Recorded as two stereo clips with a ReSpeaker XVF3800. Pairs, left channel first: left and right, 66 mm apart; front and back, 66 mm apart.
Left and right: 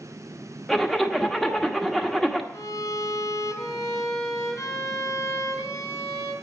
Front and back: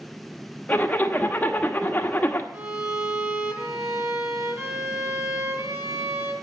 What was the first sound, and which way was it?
A zipper, 15° left.